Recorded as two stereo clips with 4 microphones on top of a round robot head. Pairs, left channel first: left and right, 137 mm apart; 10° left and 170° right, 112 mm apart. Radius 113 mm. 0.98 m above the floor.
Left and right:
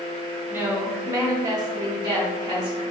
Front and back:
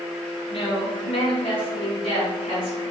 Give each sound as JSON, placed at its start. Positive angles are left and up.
{"t": 0.5, "sound": "a woman speaking", "azimuth_deg": -15, "distance_m": 1.5}